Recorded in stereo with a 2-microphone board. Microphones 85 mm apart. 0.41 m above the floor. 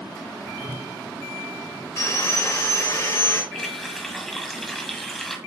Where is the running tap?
5° left (ahead or behind), 1.5 m.